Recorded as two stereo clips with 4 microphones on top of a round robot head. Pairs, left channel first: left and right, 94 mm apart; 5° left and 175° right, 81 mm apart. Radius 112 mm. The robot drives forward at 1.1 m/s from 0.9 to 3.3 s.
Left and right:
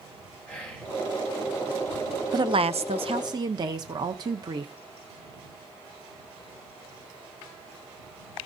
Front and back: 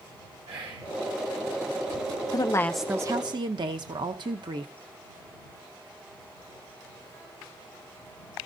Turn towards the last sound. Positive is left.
turn(degrees=-140)